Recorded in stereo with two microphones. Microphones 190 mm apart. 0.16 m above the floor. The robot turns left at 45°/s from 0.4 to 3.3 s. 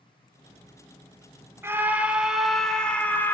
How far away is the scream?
About 1.4 m.